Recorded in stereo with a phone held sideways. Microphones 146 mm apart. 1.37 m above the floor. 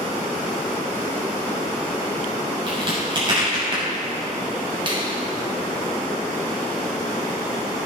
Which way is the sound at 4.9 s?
35° right (ahead or behind).